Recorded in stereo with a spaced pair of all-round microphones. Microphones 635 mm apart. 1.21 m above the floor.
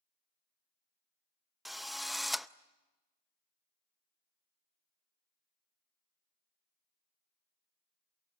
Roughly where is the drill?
Centre.